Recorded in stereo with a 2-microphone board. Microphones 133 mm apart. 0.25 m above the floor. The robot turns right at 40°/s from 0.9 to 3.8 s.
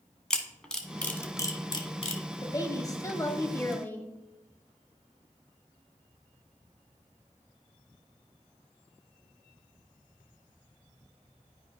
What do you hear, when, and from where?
0.3 s a camera shutter: 5° left (ahead or behind), 1.2 m; by 2.2 s 50° left (ahead or behind), 1.2 m
2.4 s a woman speaking: 30° left (ahead or behind), 1.0 m; by 4.1 s 15° left (ahead or behind), 1.0 m